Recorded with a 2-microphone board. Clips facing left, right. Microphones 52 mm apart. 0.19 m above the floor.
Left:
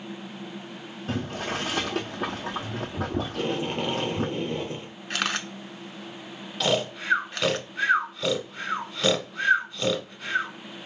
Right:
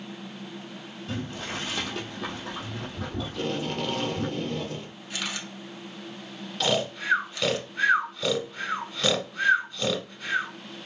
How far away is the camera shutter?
About 0.6 m.